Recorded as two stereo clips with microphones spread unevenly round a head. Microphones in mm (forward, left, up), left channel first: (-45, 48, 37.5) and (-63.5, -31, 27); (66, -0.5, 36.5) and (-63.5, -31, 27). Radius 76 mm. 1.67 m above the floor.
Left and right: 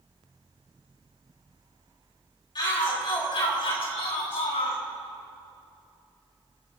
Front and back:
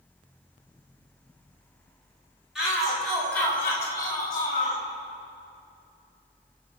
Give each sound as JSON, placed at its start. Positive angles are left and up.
{"t": 2.5, "sound": "a shout", "azimuth_deg": 105, "distance_m": 5.0}